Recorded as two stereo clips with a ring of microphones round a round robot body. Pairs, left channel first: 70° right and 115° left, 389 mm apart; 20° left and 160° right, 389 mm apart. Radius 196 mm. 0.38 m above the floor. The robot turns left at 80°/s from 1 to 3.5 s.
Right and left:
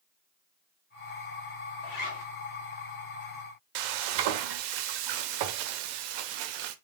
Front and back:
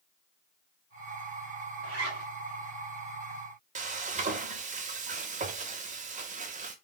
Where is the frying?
130° left, 0.5 m.